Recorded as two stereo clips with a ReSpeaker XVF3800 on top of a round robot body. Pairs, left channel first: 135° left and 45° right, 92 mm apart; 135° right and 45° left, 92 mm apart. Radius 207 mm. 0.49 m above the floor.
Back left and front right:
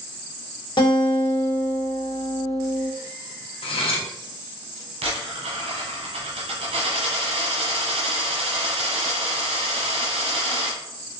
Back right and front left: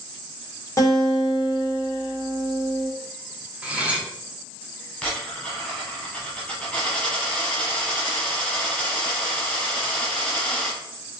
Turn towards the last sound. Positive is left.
turn(degrees=-55)